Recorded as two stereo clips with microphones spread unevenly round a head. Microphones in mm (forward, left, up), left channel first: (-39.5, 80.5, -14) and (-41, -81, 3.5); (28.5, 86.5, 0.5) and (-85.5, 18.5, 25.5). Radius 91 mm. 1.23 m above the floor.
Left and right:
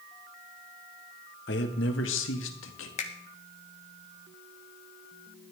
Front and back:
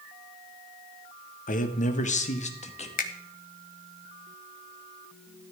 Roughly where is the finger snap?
Ahead left.